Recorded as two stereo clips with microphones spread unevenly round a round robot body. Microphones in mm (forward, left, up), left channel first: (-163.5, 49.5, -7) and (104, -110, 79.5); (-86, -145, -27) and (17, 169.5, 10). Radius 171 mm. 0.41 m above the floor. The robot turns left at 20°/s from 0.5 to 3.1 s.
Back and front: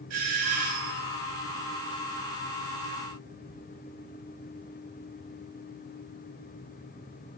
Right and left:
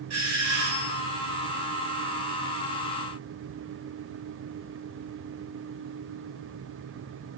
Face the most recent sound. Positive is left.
turn(degrees=-30)